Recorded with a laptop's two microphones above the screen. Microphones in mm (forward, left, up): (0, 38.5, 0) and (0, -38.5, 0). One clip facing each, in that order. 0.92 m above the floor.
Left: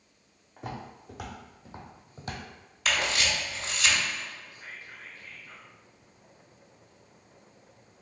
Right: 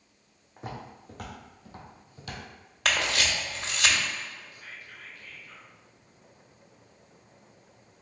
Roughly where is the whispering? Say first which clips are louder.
Left 1 dB; left.